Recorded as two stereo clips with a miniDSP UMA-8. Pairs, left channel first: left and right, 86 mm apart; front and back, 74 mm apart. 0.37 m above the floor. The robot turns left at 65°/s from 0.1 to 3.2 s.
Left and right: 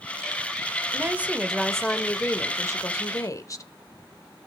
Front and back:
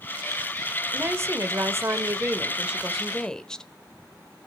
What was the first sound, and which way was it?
A woman speaking, 135° right.